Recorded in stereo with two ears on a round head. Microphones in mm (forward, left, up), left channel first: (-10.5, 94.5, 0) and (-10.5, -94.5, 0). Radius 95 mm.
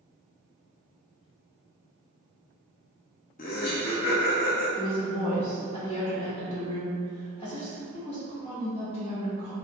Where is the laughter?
40° left (ahead or behind), 0.5 m; by 4.7 s 55° left (ahead or behind), 1.9 m.